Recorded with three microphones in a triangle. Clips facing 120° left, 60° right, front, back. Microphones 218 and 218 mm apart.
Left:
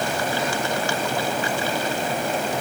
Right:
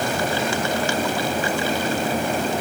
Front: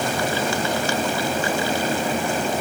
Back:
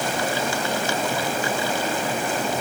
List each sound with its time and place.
Only background noise.